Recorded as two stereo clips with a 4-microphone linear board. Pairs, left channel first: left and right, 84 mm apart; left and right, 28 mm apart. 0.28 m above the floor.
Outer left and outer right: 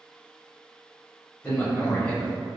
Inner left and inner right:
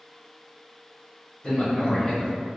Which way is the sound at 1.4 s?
25° left (ahead or behind).